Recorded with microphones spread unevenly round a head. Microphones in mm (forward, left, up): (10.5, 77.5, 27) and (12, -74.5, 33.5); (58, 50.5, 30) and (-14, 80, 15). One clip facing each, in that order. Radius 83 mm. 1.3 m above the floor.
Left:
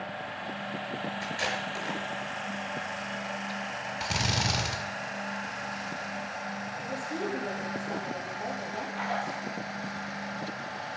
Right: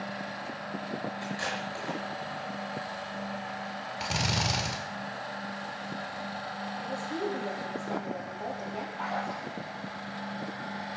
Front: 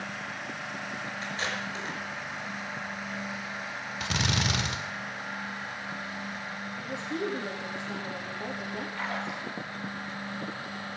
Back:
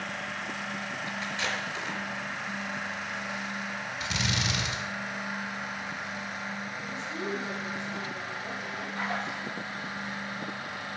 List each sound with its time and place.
1.2 s tape being pulled: 25° left, 5.5 m
4.0 s a drill: straight ahead, 1.7 m
6.8 s a woman speaking: straight ahead, 3 m
8.9 s a splash: 85° left, 6.5 m